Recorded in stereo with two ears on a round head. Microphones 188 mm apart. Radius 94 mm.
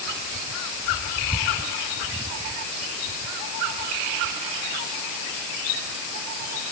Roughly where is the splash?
No splash in this recording.